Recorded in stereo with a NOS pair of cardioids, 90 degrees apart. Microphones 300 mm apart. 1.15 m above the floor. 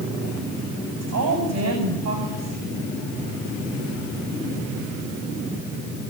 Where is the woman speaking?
65° right, 8 m.